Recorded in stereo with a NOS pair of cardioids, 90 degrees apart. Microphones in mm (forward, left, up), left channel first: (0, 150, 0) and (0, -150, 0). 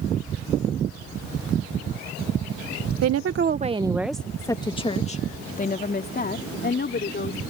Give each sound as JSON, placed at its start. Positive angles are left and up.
{"t": 3.0, "sound": "a woman speaking", "azimuth_deg": -60}